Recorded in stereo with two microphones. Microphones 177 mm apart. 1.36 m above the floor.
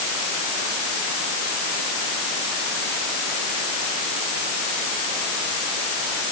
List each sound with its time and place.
Only background noise.